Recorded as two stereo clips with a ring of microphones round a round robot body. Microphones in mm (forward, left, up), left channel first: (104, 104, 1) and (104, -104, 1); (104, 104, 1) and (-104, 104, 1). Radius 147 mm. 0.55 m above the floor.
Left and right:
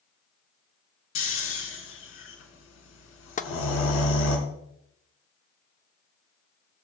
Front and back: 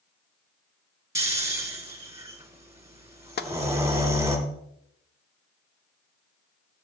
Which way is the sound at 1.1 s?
105° left.